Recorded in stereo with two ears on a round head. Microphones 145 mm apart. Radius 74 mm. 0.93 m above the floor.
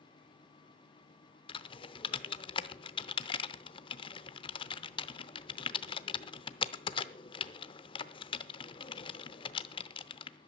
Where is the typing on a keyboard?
30° left (ahead or behind), 0.7 m.